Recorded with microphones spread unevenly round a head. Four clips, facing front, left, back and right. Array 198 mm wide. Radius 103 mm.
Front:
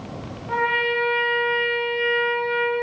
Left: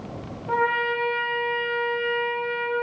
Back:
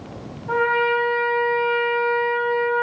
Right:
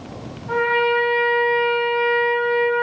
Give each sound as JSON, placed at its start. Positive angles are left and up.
{"t": 0.5, "sound": "a trumpet", "azimuth_deg": 150, "distance_m": 1.6}